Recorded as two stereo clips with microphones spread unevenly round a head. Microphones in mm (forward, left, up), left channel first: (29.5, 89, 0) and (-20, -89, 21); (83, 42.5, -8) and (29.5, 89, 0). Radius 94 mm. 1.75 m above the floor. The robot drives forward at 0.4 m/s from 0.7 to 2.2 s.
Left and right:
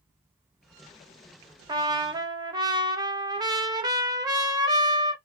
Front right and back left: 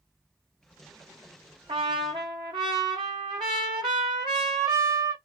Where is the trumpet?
175° right, 0.8 m.